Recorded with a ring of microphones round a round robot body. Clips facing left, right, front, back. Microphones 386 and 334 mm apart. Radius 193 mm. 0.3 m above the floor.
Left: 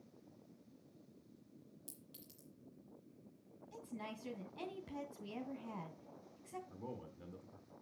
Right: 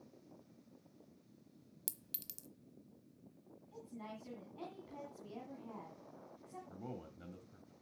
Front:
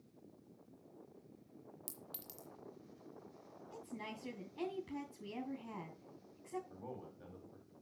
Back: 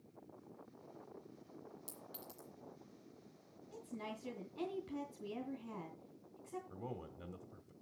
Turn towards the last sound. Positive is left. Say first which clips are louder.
# right 1 dB, back 2 dB
turn(degrees=-170)